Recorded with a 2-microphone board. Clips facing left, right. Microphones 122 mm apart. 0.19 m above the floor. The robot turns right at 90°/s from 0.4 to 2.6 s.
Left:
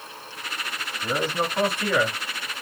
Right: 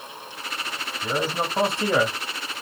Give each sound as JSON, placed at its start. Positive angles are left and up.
{"t": 1.0, "sound": "a man speaking", "side_deg": 0, "distance_m": 1.1}